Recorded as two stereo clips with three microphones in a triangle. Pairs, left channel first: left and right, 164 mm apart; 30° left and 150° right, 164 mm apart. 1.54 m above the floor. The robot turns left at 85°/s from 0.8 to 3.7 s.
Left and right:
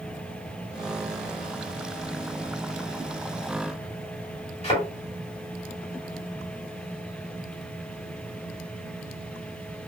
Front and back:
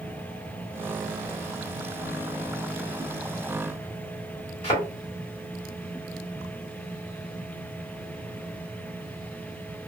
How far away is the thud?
About 1.7 m.